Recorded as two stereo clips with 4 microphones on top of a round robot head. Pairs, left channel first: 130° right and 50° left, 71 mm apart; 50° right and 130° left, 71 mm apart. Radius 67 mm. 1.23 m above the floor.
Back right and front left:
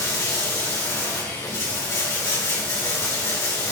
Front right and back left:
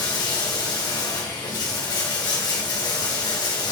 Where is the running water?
80° right, 3 m.